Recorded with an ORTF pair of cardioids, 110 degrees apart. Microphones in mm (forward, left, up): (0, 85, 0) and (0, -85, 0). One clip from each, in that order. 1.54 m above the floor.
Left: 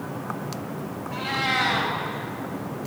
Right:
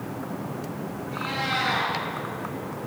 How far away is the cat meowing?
About 4 m.